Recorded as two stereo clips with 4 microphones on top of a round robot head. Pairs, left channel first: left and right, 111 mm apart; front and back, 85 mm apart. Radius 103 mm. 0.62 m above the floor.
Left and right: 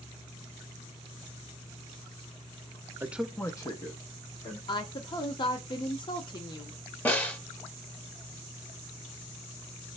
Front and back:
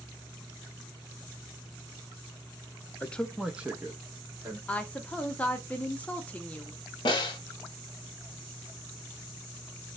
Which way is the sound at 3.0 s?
50° right.